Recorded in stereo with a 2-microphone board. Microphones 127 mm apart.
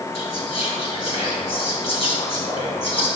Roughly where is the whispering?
Left.